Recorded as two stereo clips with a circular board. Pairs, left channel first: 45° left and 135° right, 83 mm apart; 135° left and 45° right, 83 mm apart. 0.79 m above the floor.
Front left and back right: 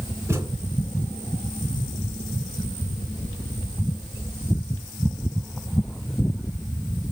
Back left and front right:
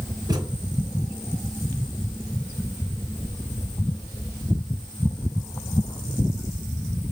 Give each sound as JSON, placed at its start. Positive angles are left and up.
{"t": 0.3, "sound": "a thud", "azimuth_deg": -80, "distance_m": 2.5}